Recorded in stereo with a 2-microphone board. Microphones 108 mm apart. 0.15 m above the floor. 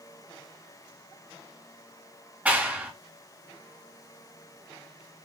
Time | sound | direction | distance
2.5 | a clap | 15° right (ahead or behind) | 1.4 m